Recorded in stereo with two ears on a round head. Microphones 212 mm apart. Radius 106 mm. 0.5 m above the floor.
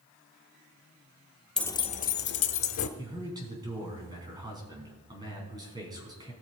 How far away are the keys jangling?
About 0.5 m.